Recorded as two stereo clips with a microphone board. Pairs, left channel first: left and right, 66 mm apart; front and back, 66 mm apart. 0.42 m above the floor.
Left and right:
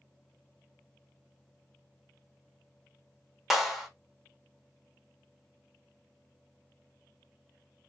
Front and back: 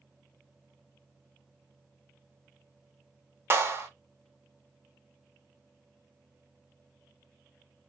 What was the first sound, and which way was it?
A clap, 175° right.